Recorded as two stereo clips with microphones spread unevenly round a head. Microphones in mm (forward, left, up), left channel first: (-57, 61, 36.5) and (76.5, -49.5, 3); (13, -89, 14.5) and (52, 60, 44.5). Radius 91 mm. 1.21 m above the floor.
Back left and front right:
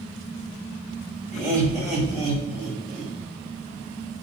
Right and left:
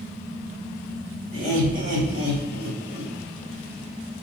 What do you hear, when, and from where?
1.3 s laughter: 90° left, 3.5 m; by 3.1 s 70° left, 4 m